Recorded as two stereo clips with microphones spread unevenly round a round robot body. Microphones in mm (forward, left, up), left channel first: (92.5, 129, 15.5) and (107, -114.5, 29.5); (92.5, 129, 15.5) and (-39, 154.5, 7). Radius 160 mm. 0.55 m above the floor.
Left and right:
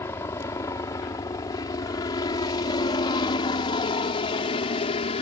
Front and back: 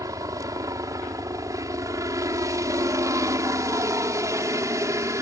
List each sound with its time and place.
0.0 s a helicopter: 160° left; by 5.2 s 130° left